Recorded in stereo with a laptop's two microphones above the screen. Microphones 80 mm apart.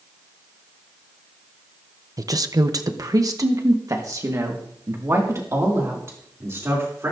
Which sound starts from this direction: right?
A woman speaking, at 2.2 s.